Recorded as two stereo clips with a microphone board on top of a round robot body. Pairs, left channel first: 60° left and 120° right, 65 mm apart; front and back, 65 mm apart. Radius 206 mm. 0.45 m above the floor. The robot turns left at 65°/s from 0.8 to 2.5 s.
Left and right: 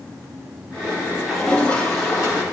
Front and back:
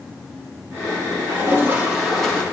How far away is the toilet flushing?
About 2.5 m.